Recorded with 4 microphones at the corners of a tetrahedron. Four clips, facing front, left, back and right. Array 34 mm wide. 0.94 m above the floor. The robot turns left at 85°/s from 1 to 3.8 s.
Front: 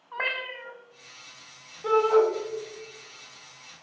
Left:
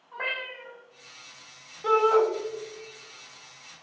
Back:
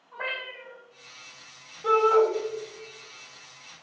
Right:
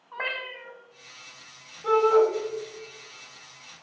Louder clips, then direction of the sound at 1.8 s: Right 1 dB, back 1 dB; 75° left.